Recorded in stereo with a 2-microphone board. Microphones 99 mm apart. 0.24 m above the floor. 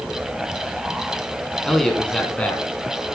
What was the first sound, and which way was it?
A man speaking, 5° left (ahead or behind).